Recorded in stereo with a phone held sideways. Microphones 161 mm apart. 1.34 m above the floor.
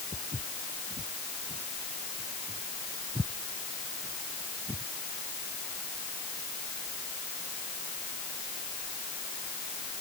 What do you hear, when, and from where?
0.1 s footsteps: 40° right (ahead or behind); by 4.9 s 25° right (ahead or behind)